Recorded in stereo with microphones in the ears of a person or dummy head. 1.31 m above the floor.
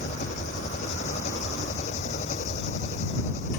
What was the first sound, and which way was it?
An engine running, 40° left (ahead or behind).